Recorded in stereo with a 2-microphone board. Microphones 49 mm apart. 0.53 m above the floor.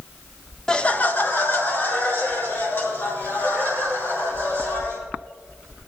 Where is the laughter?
15° left (ahead or behind), 0.7 m; by 5.0 s 50° left (ahead or behind), 6.5 m.